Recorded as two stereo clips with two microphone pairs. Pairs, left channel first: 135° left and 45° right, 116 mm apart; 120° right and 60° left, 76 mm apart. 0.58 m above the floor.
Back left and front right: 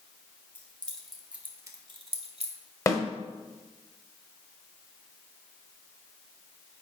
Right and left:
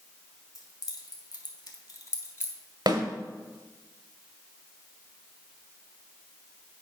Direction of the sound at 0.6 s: 155° right.